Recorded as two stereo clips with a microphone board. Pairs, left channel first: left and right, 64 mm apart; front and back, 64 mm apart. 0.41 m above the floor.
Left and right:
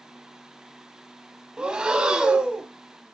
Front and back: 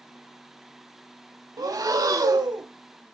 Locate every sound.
1.6 s breathing: 170° right, 0.6 m